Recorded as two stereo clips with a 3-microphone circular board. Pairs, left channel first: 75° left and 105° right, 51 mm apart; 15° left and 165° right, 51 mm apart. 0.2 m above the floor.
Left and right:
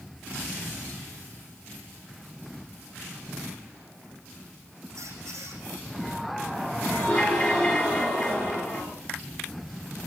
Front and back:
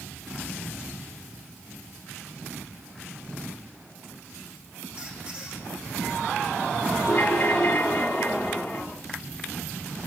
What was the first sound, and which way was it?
A squeak, 95° right.